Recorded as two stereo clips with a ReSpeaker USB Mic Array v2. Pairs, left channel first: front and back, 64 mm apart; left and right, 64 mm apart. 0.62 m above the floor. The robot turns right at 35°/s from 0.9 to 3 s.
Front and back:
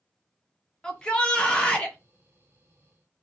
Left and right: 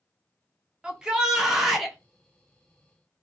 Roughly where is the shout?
Ahead right.